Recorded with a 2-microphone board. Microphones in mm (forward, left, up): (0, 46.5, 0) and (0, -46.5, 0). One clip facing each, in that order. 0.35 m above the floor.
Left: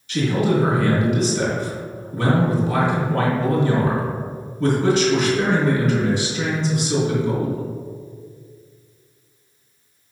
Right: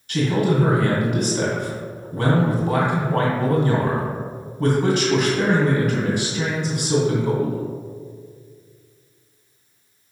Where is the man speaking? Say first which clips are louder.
Left 1 dB; 50° right (ahead or behind), 2 m.